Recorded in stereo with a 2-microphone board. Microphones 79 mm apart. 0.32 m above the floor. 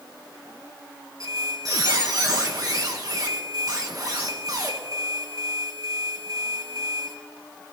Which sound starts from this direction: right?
A squeak, at 1.2 s.